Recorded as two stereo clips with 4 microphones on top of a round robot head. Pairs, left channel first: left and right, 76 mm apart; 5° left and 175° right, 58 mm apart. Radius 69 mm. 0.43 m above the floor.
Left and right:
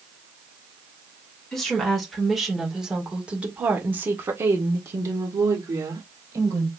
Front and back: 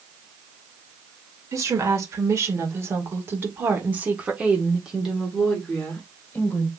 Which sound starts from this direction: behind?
A woman speaking, at 1.5 s.